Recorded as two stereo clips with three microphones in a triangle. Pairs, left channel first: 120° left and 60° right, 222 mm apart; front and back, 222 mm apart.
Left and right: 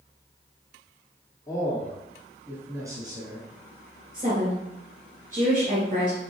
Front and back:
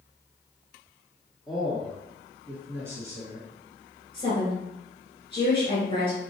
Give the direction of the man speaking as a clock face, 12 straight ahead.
9 o'clock.